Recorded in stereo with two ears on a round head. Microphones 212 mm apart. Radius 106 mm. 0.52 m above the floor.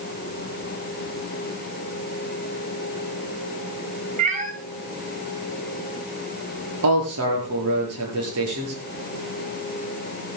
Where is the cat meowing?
30° right (ahead or behind), 2.5 m.